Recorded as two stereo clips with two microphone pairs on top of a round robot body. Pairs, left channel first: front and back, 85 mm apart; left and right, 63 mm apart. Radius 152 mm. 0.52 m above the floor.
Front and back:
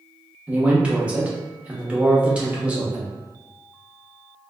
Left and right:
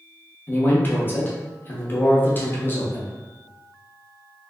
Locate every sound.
0.5 s a man speaking: 135° left, 1.1 m